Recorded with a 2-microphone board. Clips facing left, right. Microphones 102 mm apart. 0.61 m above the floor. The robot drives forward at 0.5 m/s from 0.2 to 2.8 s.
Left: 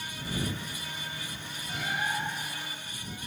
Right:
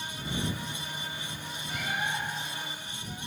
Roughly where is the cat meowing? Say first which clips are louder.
Left 1 dB; left.